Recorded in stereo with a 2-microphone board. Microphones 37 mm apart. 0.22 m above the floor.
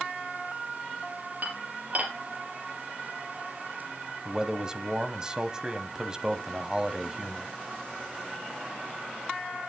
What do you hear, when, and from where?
1.4 s dishes clattering: 45° right (ahead or behind), 3.5 m
4.2 s a man speaking: 20° right (ahead or behind), 1.0 m